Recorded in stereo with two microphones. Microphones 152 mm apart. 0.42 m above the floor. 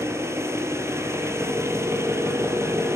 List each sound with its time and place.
0.0 s an engine running: 15° right (ahead or behind), 4.5 m